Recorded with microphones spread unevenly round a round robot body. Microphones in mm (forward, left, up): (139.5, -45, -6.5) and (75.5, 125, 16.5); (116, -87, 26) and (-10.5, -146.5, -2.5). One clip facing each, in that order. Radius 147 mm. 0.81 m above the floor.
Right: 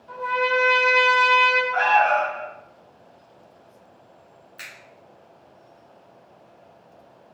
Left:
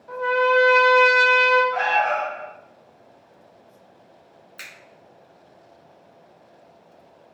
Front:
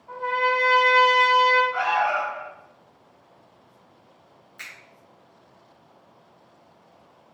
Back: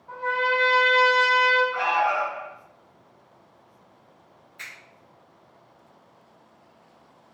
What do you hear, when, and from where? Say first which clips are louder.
0.1 s a trumpet: left 5 dB, front 1 dB; 115° left, 0.6 m
1.7 s an alarm: right 2 dB, even; 115° left, 2.0 m
4.6 s a finger snap: even, even; 85° left, 1.5 m